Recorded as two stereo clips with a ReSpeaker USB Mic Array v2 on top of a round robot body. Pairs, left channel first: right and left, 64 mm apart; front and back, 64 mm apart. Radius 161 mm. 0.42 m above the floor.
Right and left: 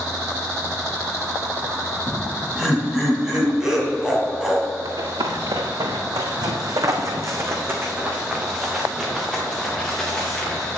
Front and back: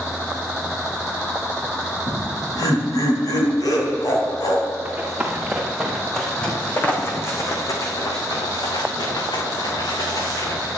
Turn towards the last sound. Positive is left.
turn(degrees=-5)